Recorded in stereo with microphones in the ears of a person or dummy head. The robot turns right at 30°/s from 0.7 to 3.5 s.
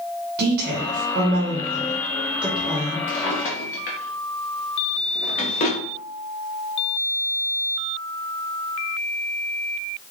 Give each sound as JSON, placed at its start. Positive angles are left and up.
{"t": 0.4, "sound": "a woman speaking", "side_deg": -50, "distance_m": 1.0}
{"t": 3.1, "sound": "a drawer", "side_deg": 30, "distance_m": 0.9}